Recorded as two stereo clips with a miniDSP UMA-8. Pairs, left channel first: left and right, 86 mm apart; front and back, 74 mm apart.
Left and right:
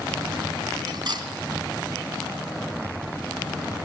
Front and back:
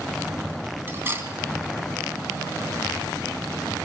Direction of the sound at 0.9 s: 120° right.